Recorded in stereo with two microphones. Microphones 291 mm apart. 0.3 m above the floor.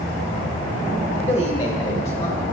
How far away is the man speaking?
About 1.0 m.